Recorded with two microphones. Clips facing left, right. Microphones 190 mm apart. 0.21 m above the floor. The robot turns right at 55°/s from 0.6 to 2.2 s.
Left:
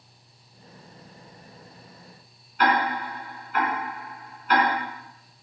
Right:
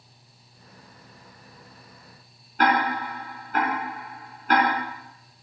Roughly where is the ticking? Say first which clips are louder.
Right 1 dB; right.